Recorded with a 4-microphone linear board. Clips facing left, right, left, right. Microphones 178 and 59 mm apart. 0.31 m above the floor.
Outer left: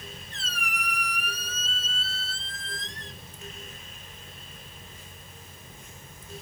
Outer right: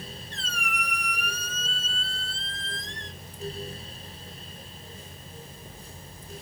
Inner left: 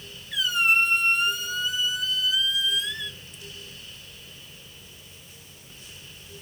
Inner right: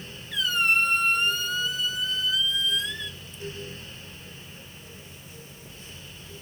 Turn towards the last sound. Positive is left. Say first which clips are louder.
# outer right 2 dB, inner left 1 dB
turn(degrees=5)  # may be behind; listen again after turning